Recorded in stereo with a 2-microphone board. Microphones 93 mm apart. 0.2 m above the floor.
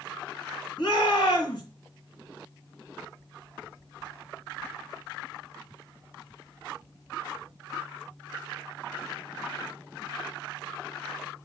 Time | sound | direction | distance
0.8 | a shout | 50° left (ahead or behind) | 4 m